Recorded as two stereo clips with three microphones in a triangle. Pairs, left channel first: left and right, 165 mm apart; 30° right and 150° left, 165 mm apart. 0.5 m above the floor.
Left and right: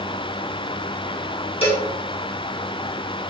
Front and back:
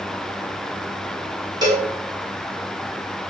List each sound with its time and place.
1.6 s a cowbell: 105° left, 1.2 m